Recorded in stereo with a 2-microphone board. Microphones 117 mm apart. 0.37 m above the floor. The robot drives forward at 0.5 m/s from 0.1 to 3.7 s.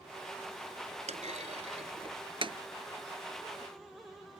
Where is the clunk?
80° right; by 2.6 s 45° right (ahead or behind).